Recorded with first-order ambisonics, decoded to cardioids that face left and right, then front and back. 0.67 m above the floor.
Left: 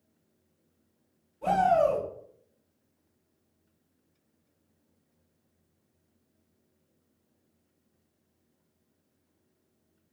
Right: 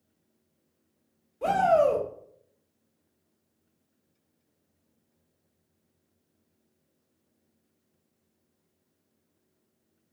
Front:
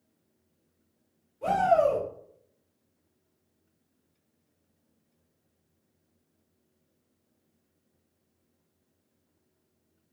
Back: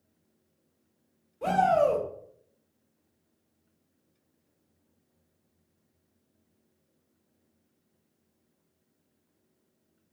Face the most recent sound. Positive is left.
turn(degrees=-115)